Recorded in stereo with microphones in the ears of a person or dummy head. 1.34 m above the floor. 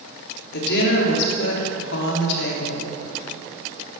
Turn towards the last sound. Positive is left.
turn(degrees=60)  # may be behind; listen again after turning